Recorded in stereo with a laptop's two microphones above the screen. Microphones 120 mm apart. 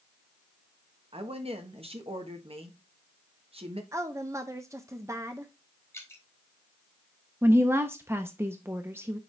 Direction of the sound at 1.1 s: 55° right (ahead or behind).